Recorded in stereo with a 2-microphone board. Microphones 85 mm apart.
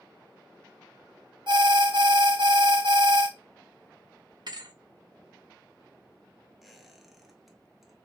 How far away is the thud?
About 0.5 m.